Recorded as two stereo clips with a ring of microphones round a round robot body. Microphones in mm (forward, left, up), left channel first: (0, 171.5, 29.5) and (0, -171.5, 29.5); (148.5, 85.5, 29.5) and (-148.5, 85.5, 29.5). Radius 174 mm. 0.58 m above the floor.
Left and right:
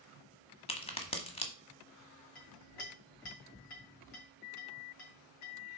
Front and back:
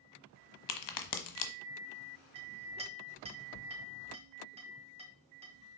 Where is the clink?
110° left, 2.5 m.